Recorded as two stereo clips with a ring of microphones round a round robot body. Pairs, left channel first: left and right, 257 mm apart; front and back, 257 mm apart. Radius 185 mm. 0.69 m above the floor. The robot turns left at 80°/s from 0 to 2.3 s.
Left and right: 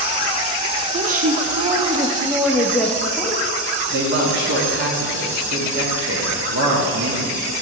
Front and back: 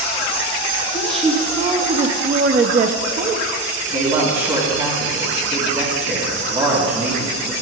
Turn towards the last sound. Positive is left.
turn(degrees=-120)